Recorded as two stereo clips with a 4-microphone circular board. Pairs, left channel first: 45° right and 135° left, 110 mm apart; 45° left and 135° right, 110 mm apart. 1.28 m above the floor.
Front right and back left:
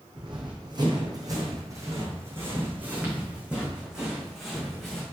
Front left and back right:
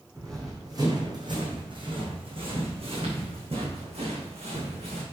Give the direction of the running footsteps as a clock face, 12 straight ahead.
6 o'clock.